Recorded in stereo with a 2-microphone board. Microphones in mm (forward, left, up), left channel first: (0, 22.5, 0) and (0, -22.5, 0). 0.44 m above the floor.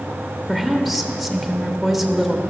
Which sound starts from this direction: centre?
A woman speaking, at 0.5 s.